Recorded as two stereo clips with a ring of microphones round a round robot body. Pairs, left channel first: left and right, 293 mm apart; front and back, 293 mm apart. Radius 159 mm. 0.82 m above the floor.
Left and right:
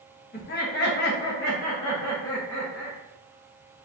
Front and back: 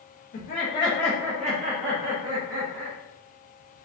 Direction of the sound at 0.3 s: 45° left.